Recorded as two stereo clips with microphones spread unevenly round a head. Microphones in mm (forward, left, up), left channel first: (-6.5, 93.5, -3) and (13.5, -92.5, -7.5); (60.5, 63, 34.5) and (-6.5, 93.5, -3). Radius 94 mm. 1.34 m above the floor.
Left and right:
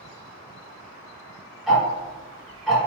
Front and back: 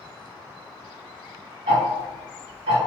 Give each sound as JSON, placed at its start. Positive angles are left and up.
{"t": 1.7, "sound": "ticking", "azimuth_deg": -175, "distance_m": 0.7}